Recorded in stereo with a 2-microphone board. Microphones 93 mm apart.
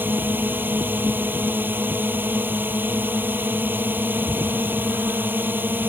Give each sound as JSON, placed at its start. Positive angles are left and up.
{"t": 0.0, "sound": "a drone", "side_deg": -20}